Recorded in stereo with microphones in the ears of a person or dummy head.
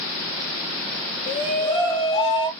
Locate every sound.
1.3 s a shout: 25° left (ahead or behind), 1.3 m